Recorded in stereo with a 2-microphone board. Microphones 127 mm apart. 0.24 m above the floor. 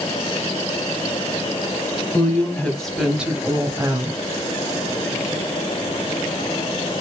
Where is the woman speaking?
20° left (ahead or behind), 1.7 m; by 4.2 s 35° right (ahead or behind), 1.4 m.